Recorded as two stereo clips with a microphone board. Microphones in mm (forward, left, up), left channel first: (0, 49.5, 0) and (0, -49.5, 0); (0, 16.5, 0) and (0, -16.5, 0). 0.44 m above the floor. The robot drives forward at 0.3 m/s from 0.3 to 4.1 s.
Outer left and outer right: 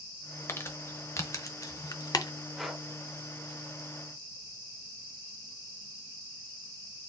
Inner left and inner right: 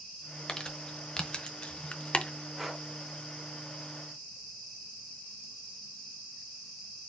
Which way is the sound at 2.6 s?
Centre (ahead or behind).